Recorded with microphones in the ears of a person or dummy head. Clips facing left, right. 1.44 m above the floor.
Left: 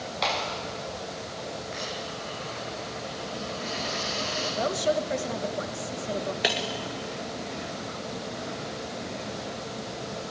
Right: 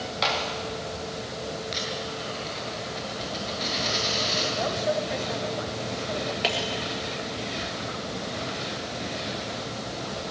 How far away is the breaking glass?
About 1.7 m.